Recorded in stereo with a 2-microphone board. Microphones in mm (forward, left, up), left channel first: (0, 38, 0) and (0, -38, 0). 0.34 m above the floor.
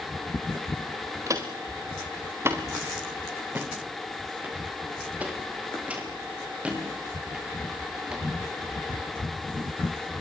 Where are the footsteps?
45° right (ahead or behind), 3 m; by 8.9 s 10° right (ahead or behind), 8.5 m.